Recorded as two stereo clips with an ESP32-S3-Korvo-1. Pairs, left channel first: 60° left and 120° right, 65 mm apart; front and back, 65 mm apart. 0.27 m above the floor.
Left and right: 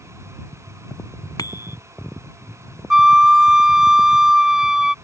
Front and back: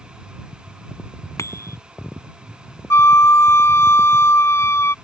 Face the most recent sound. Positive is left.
turn(degrees=-40)